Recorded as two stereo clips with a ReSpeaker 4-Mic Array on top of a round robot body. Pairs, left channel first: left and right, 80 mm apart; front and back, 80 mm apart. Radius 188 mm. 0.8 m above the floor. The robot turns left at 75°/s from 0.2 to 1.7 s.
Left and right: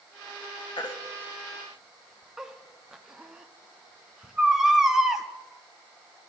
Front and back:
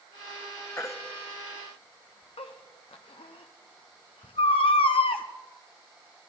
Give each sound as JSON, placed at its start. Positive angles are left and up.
{"t": 0.8, "sound": "a baby crying", "azimuth_deg": 65, "distance_m": 0.8}